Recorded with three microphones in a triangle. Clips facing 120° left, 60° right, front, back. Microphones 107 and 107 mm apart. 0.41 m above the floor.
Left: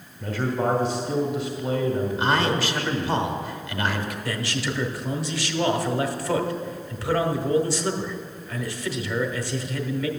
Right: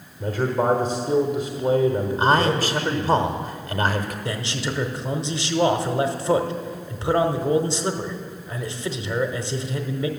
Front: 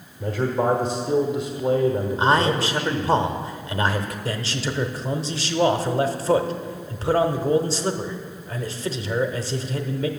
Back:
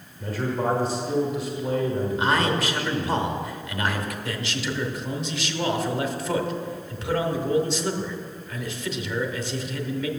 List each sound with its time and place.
0.2 s a man speaking: 55° right, 1.2 m
2.2 s a man speaking: 45° right, 1.1 m
4.2 s a man speaking: 15° right, 0.9 m